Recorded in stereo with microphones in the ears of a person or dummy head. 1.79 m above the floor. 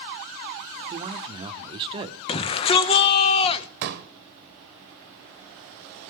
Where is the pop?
50° right (ahead or behind), 1.1 m.